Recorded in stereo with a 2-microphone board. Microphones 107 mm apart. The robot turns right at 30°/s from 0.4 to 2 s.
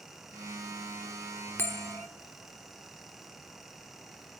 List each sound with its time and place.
1.6 s a bell: 20° left (ahead or behind), 0.9 m; by 2.1 s 25° left (ahead or behind), 0.9 m